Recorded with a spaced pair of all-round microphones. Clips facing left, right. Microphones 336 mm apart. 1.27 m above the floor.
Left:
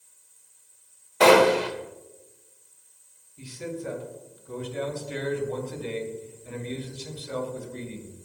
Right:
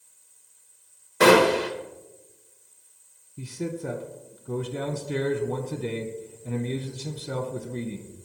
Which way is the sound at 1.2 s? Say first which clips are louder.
Even; 20° right (ahead or behind).